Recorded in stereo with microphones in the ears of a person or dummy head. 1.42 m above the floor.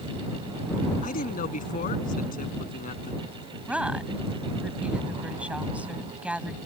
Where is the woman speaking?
5° right (ahead or behind).